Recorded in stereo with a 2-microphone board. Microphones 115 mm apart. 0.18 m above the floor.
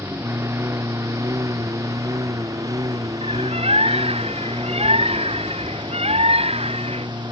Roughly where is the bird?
Right.